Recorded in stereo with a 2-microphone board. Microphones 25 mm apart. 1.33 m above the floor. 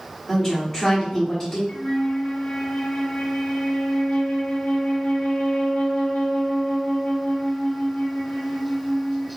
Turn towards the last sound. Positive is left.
turn(degrees=60)  # may be behind; listen again after turning